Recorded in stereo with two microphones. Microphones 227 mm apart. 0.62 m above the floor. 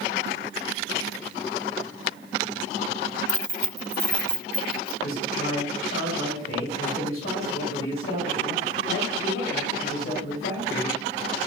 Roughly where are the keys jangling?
Right.